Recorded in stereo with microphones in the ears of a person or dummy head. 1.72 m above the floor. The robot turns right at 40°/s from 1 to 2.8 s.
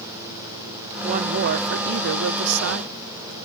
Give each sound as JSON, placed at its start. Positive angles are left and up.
{"t": 1.0, "sound": "a woman speaking", "azimuth_deg": -145}